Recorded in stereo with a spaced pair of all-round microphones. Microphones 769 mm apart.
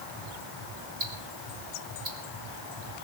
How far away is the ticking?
About 3 m.